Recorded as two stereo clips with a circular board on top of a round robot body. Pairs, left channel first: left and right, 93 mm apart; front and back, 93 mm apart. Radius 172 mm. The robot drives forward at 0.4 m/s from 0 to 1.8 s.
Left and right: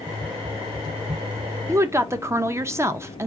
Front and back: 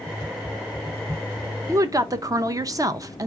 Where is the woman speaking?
135° right, 0.6 m; by 3.3 s 140° right, 0.6 m.